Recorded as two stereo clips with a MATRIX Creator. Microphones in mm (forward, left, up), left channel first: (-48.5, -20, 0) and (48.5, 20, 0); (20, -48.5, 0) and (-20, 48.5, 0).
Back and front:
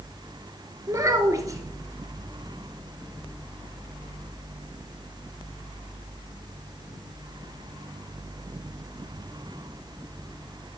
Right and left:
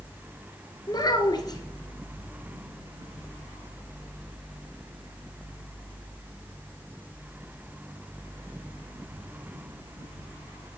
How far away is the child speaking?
About 1.4 m.